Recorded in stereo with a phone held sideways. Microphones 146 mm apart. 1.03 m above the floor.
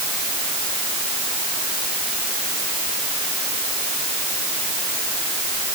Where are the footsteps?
I don't hear footsteps.